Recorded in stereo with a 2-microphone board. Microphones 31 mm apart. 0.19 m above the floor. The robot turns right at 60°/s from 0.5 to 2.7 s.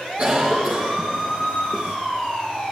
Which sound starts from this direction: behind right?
A cough, at 0.2 s.